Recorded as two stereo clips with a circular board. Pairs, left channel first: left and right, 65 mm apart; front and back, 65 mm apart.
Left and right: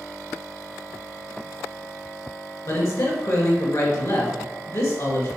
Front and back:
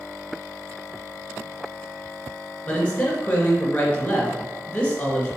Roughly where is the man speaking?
Ahead left.